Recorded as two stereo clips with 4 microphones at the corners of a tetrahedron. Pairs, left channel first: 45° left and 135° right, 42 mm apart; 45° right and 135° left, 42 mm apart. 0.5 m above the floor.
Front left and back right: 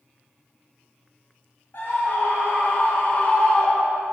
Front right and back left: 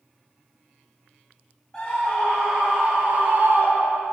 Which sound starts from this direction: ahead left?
A scream, at 1.7 s.